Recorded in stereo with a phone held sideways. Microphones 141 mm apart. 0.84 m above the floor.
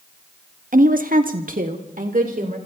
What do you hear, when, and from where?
0.7 s a woman speaking: 65° right (ahead or behind), 0.9 m; by 2.6 s 60° right (ahead or behind), 3 m